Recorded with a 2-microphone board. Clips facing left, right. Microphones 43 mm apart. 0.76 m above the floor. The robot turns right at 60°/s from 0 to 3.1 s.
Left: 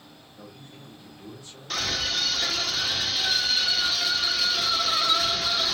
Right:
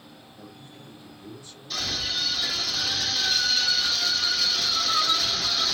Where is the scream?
80° left, 1.8 m; by 5.7 s 165° left, 1.8 m.